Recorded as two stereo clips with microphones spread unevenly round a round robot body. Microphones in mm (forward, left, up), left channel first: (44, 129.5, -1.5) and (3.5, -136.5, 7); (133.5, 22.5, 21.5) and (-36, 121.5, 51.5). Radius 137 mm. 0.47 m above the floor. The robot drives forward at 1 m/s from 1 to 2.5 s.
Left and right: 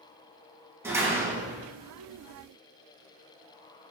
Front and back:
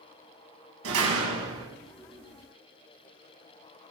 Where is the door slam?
Straight behind, 3 m.